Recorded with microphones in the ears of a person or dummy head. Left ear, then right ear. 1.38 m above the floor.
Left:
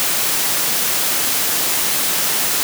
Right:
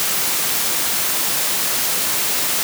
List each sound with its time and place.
Only background noise.